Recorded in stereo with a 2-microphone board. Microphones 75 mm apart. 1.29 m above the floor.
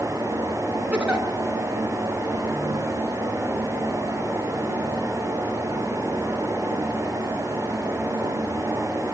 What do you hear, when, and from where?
0.9 s a giggle: 15° right (ahead or behind), 3.5 m